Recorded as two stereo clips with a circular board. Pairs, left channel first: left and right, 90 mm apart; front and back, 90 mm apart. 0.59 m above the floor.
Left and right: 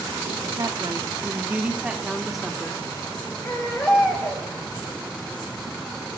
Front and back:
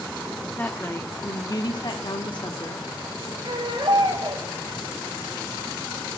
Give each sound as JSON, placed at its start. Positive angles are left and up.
{"t": 0.6, "sound": "a woman speaking", "azimuth_deg": -65, "distance_m": 1.0}
{"t": 3.4, "sound": "a baby crying", "azimuth_deg": 155, "distance_m": 6.0}